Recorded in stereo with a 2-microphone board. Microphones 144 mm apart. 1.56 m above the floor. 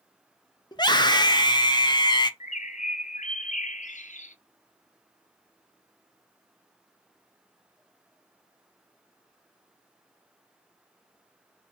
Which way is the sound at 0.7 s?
30° left (ahead or behind).